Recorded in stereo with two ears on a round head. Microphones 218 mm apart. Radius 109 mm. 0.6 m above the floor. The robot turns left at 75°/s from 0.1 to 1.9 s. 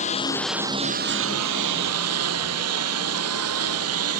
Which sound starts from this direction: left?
A lawn mower, at 0.0 s.